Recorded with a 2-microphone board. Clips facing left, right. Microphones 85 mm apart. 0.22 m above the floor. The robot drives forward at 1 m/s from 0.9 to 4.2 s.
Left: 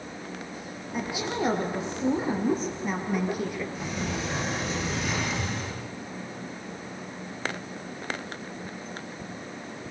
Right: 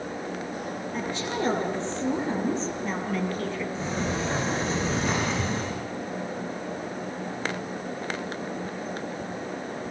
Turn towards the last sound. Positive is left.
turn(degrees=-35)  # may be behind; listen again after turning